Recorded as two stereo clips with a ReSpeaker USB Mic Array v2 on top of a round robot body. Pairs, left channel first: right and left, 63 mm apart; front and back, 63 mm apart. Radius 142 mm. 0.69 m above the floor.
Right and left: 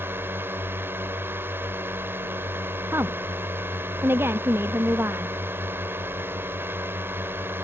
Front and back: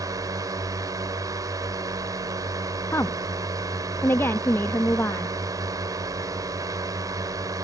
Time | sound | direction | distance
0.0 | a drone | 150° left | ?
2.9 | a woman speaking | 45° left | ?